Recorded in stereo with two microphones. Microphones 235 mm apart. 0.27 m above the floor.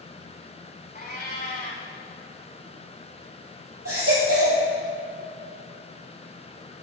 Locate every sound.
0.9 s a cat meowing: 40° left (ahead or behind), 1.3 m
3.9 s a baby crying: 85° right, 3 m